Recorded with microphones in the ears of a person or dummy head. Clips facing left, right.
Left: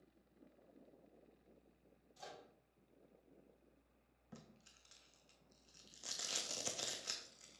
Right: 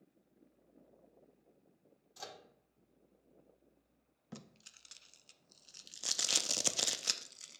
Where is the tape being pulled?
60° right (ahead or behind), 0.6 m.